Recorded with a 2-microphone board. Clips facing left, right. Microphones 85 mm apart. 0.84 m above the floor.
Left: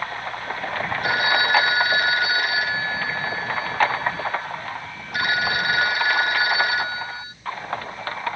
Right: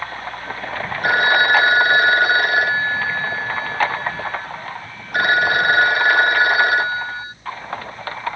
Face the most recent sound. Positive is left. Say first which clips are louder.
# right 6 dB
turn(degrees=-50)  # may be behind; listen again after turning